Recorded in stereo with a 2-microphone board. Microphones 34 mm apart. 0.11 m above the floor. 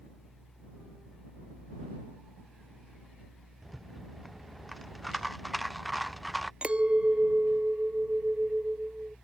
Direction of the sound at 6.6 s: 35° right (ahead or behind).